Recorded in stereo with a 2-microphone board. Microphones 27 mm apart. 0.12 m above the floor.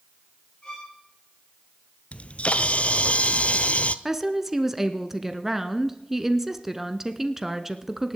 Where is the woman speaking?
10° right (ahead or behind), 1.1 m.